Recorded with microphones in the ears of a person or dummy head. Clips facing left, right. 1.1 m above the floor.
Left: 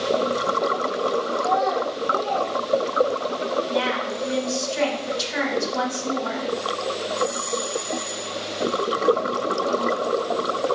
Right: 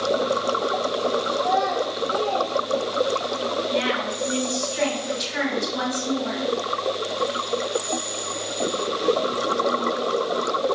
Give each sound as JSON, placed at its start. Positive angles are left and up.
{"t": 1.4, "sound": "a child speaking", "side_deg": 5, "distance_m": 1.6}
{"t": 3.7, "sound": "a woman speaking", "side_deg": 55, "distance_m": 2.0}